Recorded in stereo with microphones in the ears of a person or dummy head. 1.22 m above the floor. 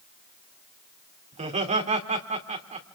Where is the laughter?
35° right (ahead or behind), 3 m.